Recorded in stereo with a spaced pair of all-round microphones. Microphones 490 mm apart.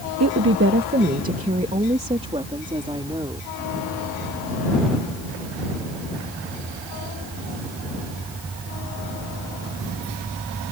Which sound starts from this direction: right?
A woman speaking, at 0.2 s.